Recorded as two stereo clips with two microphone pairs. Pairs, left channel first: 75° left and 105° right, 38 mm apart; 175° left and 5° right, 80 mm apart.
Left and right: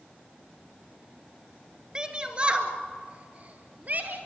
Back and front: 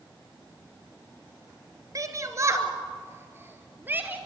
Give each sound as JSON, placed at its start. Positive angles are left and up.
{"t": 1.9, "sound": "a shout", "azimuth_deg": -45, "distance_m": 2.5}